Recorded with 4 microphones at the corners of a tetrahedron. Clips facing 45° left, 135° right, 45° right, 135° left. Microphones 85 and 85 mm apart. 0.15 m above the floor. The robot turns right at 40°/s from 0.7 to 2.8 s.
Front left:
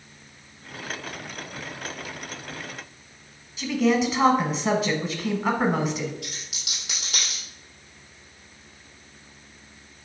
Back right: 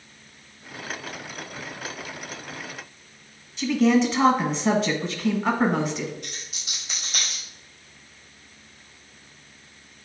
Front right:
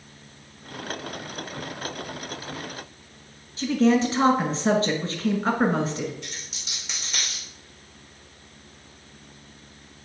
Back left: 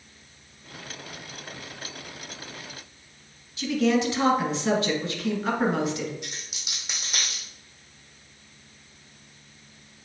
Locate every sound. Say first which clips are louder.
3.6 s a woman speaking: back right 2 dB, front right 3 dB; 40° right, 1.3 m
6.2 s a dropped coin: front left 1 dB, even; 55° left, 3 m